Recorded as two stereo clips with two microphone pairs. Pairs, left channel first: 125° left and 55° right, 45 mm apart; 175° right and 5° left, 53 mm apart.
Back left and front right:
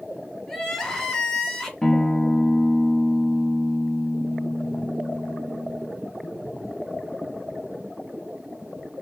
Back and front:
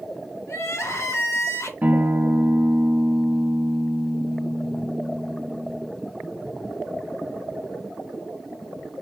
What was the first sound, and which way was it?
Crying, 155° right.